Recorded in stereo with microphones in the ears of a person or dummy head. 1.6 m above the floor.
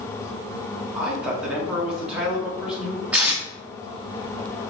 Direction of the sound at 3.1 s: 5° right (ahead or behind).